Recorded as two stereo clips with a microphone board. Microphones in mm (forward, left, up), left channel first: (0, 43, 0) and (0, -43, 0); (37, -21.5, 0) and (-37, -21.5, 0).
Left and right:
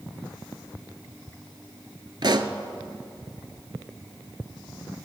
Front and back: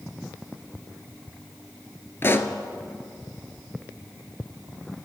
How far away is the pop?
About 0.7 m.